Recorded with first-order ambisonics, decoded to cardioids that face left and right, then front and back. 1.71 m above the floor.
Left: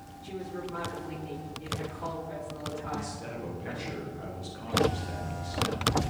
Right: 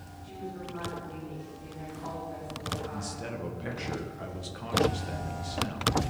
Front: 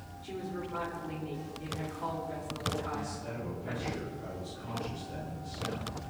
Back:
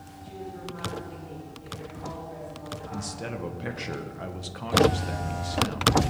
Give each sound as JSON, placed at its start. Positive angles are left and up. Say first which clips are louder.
{"t": 0.2, "sound": "a woman speaking", "louder": "left 3 dB, even", "azimuth_deg": 40, "distance_m": 6.5}
{"t": 2.9, "sound": "a man speaking", "louder": "left 1 dB, back 3 dB", "azimuth_deg": -165, "distance_m": 2.0}